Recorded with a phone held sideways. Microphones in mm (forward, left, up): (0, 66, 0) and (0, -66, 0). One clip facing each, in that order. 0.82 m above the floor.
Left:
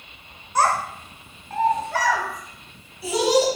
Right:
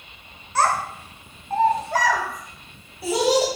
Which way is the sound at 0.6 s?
15° left (ahead or behind).